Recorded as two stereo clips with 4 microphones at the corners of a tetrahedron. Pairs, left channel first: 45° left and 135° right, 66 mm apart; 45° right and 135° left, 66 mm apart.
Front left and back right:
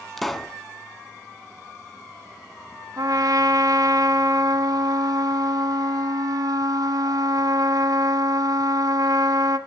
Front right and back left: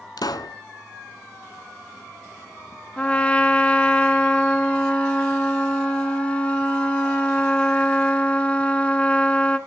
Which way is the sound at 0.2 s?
40° right.